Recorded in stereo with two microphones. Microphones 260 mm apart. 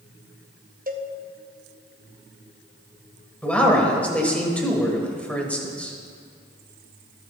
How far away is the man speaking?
About 1.7 m.